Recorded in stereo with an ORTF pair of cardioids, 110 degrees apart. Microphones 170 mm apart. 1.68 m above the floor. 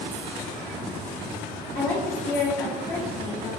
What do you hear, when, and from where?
1.8 s a woman speaking: 65° left, 0.9 m